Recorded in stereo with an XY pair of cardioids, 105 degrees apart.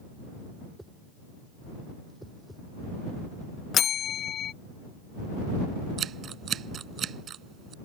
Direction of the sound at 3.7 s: 60° left.